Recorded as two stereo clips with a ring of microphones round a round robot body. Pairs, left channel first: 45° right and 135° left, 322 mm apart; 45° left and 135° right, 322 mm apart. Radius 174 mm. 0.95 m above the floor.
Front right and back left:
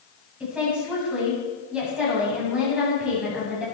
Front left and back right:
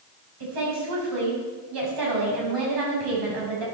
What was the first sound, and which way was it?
A woman speaking, 140° right.